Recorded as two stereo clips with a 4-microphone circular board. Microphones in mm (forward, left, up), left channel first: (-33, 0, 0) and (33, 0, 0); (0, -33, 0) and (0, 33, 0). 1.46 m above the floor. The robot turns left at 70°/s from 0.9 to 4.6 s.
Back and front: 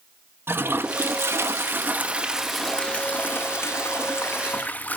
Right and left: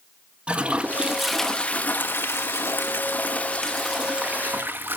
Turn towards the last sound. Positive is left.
turn(degrees=125)